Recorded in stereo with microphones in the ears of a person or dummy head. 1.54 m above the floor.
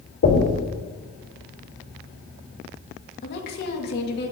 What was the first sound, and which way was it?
Knocking, 60° left (ahead or behind).